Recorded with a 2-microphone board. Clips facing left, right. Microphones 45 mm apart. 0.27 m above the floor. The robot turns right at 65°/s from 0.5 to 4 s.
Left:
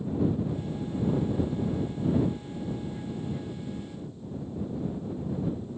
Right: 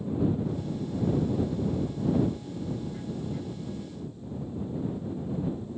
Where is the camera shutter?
I don't hear a camera shutter.